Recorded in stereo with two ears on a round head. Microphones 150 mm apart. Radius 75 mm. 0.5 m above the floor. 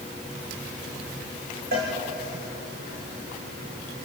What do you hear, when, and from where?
1.7 s a cowbell: 55° right (ahead or behind), 7.5 m